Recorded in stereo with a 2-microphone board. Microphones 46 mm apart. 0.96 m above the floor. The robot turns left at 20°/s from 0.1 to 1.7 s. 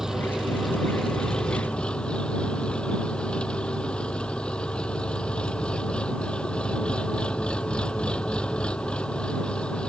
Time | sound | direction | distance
0.0 | an engine running | 170° right | ?